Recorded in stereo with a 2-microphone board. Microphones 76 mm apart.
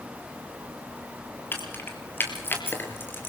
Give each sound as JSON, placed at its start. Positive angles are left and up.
{"t": 1.5, "sound": "keys jangling", "side_deg": 30, "distance_m": 4.0}